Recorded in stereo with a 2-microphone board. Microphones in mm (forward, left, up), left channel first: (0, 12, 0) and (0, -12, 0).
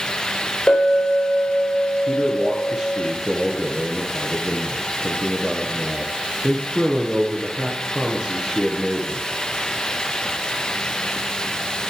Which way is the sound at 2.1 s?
35° right (ahead or behind).